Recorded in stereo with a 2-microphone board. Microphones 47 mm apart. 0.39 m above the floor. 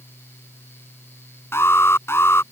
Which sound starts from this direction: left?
An alarm, at 1.5 s.